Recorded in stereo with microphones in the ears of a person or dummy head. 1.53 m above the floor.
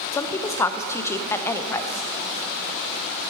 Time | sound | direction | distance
0.1 | a woman speaking | 20° left (ahead or behind) | 0.5 m